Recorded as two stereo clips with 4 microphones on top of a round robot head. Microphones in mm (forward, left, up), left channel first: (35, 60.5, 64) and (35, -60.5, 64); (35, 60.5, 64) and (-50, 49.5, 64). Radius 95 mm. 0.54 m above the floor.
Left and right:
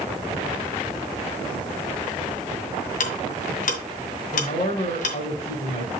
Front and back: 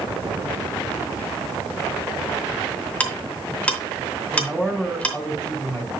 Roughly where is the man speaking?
Left.